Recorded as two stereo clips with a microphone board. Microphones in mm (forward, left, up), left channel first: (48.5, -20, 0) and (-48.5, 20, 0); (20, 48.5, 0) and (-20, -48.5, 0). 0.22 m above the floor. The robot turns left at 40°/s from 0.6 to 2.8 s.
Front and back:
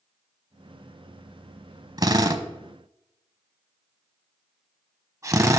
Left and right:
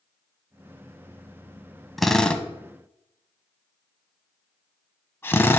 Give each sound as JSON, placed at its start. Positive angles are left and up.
{"t": 2.0, "sound": "a drill", "azimuth_deg": 155, "distance_m": 0.7}